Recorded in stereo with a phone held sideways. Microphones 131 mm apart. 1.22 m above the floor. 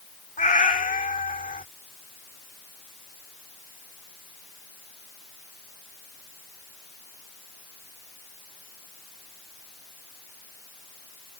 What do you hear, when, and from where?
0.4 s a cat meowing: 70° left (ahead or behind)